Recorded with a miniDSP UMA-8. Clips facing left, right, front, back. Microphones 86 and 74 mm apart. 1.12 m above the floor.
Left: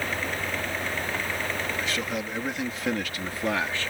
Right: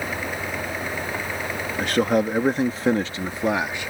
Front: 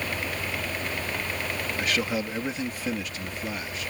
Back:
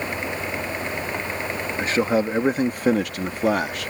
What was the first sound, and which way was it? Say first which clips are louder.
A man speaking: right 10 dB, back 8 dB; 120° right.